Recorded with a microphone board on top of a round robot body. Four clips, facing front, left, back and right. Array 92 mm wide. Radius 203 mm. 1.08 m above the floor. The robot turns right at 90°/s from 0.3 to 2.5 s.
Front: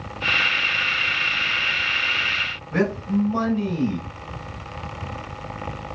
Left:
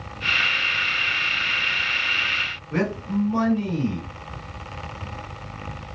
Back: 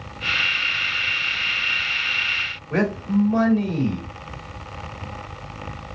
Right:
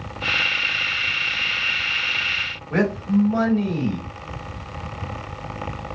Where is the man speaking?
135° right, 1.8 m.